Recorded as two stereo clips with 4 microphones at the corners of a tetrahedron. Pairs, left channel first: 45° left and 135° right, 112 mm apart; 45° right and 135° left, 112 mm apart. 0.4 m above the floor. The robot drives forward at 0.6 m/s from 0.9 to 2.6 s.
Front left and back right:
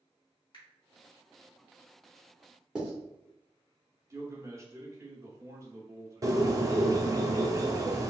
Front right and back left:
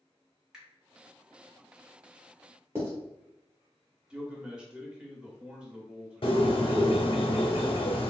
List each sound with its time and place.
0.5 s a finger snap: 55° left, 1.2 m
2.8 s writing: 155° left, 1.1 m
4.1 s a man speaking: 155° right, 0.8 m
6.2 s a bird: 75° right, 0.5 m